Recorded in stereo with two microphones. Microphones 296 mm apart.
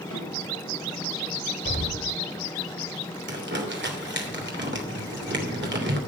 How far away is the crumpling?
About 3 m.